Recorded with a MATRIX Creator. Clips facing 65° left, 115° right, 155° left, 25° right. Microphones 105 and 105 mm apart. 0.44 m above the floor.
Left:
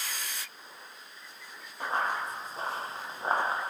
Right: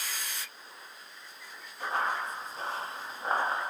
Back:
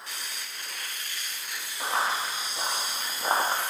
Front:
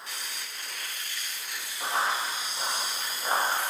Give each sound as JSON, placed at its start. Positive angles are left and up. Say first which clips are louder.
{"t": 1.8, "sound": "running footsteps", "louder": "even, back 1 dB", "azimuth_deg": 115, "distance_m": 1.5}